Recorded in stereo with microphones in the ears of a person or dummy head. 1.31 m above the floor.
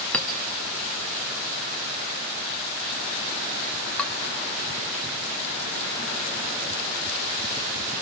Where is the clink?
5° left (ahead or behind), 1.1 m.